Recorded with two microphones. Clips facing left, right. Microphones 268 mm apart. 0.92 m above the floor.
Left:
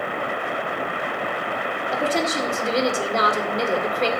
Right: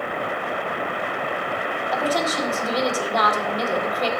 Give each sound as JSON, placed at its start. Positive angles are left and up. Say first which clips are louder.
{"t": 1.9, "sound": "a woman speaking", "louder": "left 1 dB", "side_deg": 25, "distance_m": 2.0}